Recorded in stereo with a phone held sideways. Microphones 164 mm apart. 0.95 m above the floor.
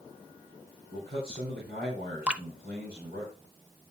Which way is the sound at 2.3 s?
5° right (ahead or behind).